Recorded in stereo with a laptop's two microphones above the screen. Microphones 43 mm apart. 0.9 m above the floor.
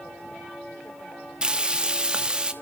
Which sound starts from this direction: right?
Frying, at 1.4 s.